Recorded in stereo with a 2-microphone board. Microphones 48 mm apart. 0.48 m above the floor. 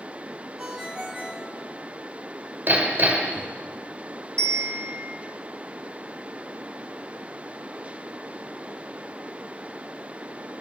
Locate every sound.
0.6 s a ringtone: 15° right (ahead or behind), 2.5 m
2.7 s hammering: 40° right (ahead or behind), 1.7 m
4.4 s a bell: 20° left (ahead or behind), 1.4 m